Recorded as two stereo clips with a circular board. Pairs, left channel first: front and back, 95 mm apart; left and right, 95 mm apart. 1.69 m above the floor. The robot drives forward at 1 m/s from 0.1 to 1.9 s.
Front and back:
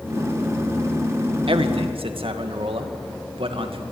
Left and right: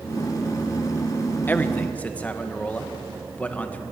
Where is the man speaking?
160° left, 1.6 m; by 3.8 s 165° left, 2 m.